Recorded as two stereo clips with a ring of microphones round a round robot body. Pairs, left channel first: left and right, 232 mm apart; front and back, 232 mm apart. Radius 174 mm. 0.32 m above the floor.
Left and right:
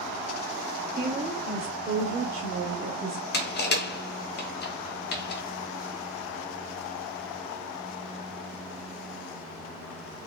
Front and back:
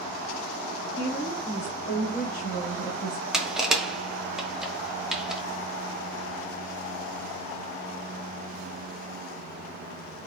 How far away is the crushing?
About 0.9 m.